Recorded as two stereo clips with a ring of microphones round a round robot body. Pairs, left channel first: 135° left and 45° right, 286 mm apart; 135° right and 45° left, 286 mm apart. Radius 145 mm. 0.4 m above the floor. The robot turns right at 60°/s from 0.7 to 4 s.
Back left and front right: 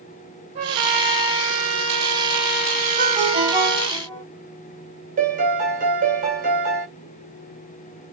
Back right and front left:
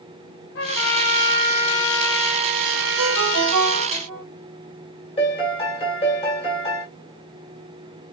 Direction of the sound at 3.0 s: Straight ahead.